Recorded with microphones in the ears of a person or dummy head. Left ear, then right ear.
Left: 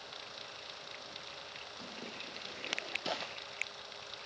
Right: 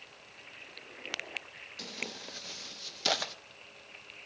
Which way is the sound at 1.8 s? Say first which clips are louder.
Right 9 dB; 40° right (ahead or behind).